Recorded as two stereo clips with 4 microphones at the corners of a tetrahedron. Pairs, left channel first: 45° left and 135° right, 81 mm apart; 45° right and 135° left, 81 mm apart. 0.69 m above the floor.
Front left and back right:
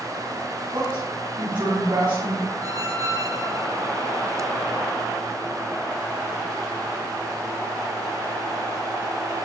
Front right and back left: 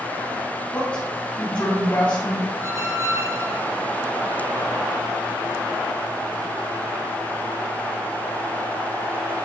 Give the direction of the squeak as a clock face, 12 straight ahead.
6 o'clock.